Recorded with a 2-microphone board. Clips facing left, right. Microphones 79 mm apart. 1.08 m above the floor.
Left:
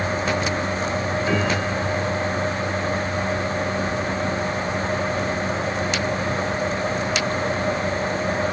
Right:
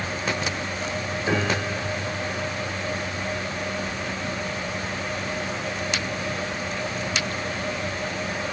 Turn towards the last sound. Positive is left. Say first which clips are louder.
# even
turn(degrees=-25)  # may be behind; listen again after turning